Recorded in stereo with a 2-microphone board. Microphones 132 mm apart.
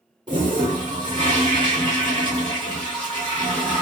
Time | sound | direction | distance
0.3 | a toilet flushing | 35° right (ahead or behind) | 2 m